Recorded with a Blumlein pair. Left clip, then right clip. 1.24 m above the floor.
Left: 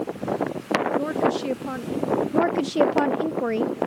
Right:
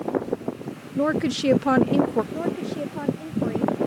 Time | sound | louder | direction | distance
1.0 | a woman speaking | even | 20° right | ?
2.3 | a woman speaking | left 8 dB | 25° left | ?